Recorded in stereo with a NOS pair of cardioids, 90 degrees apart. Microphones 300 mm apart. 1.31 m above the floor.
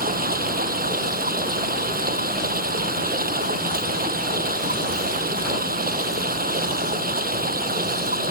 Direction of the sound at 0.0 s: 30° right.